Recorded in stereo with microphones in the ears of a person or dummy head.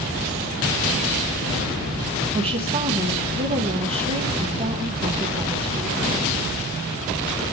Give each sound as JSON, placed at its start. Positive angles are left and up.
{"t": 2.3, "sound": "a woman speaking", "side_deg": -30, "distance_m": 1.1}